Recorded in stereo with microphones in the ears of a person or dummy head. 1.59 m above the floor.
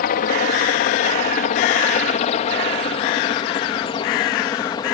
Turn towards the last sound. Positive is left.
turn(degrees=20)  # may be behind; listen again after turning